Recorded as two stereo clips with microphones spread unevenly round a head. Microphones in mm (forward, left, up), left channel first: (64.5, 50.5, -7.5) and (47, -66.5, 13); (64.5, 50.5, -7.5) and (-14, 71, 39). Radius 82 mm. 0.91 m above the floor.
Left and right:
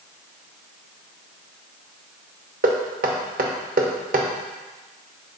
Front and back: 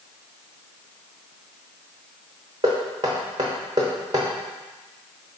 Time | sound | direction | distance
2.6 | knocking | 125° right | 1.0 m